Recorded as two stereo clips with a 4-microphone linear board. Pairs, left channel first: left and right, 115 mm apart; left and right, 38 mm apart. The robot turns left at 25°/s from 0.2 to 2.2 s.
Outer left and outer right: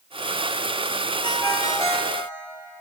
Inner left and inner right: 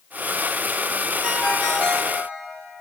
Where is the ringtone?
40° left (ahead or behind), 3.5 m; by 2.2 s 15° left (ahead or behind), 3.5 m.